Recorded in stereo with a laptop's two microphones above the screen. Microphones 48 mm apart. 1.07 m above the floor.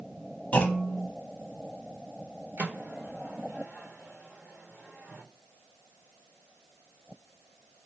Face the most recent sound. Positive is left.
turn(degrees=-50)  # may be behind; listen again after turning